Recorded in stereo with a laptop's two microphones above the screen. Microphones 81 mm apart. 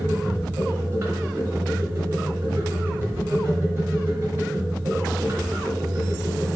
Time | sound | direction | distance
0.0 | a machine running | 30° right (ahead or behind) | 1.2 m